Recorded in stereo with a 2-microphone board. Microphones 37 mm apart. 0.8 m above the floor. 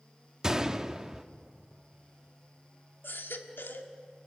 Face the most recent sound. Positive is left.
turn(degrees=70)  # may be behind; listen again after turning